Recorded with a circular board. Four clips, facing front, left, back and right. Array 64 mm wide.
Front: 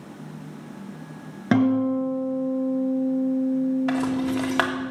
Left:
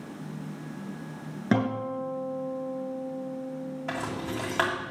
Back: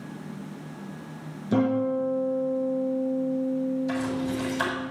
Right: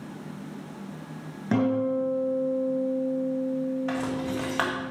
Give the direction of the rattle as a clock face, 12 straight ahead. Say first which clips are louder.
Right 3 dB, front 4 dB; 12 o'clock.